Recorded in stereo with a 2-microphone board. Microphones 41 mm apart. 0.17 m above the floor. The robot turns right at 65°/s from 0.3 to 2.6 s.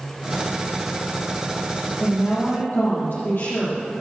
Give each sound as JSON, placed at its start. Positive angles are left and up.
{"t": 2.0, "sound": "a woman speaking", "azimuth_deg": 15, "distance_m": 6.0}